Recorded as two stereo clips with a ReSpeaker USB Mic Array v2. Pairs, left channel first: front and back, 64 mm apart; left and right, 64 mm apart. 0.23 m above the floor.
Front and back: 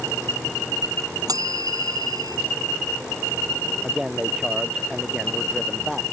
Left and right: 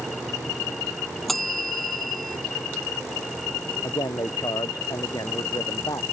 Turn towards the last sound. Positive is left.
turn(degrees=95)